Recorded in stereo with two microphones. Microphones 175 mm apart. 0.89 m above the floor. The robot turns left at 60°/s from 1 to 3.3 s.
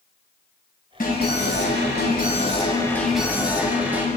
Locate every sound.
1.0 s an alarm: 130° left, 9.5 m; by 4.1 s 10° right, 9.5 m